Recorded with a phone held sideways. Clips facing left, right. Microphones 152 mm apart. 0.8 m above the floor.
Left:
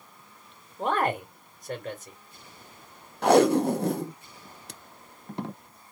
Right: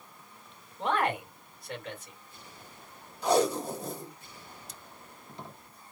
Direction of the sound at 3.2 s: 70° left (ahead or behind).